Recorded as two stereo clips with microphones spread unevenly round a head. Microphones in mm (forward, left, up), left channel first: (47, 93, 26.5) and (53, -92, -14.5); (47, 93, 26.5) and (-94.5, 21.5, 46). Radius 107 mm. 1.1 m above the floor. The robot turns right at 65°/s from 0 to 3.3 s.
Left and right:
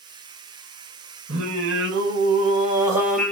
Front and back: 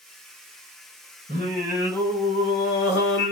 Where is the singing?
115° right, 1.6 m; by 3.3 s 20° left, 1.6 m.